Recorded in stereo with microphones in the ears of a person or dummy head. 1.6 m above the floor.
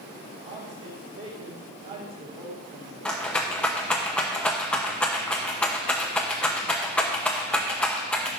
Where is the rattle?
5° left (ahead or behind), 1.1 m.